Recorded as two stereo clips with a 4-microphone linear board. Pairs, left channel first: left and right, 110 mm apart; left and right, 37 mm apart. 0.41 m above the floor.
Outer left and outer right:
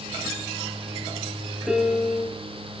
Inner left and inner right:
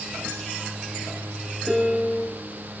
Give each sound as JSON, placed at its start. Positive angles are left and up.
{"t": 1.7, "sound": "a piano", "side_deg": -10, "distance_m": 9.5}